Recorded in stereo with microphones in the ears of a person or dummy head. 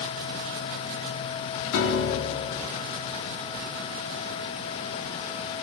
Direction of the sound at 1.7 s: 75° left (ahead or behind).